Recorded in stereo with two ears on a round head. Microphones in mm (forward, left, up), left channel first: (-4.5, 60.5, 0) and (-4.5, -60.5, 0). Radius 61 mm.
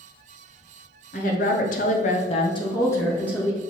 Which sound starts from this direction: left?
A woman speaking, at 1.1 s.